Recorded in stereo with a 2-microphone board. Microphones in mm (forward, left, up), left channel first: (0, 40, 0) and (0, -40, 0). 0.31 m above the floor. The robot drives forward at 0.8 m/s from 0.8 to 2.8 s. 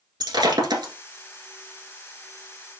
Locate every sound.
0.2 s breaking glass: 65° right (ahead or behind), 1.6 m; by 0.9 s 70° right (ahead or behind), 1.6 m